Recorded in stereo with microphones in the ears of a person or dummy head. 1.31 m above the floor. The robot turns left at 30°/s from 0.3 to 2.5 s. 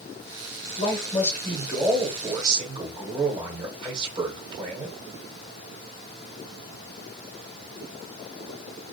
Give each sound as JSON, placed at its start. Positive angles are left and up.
{"t": 0.8, "sound": "a man speaking", "azimuth_deg": 25, "distance_m": 0.8}